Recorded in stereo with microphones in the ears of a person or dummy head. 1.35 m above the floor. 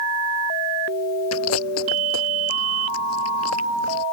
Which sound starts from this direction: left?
Chewing, at 1.3 s.